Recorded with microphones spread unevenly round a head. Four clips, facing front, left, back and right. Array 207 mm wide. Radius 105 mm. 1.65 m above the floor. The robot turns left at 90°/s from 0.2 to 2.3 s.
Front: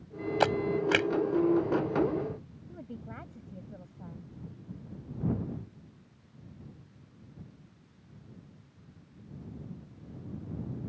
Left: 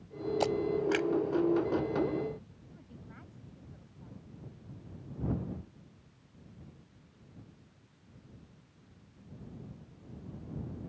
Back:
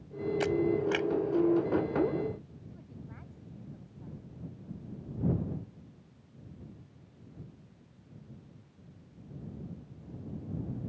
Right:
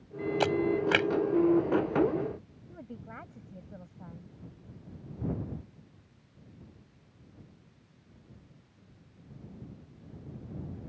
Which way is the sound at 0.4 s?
Straight ahead.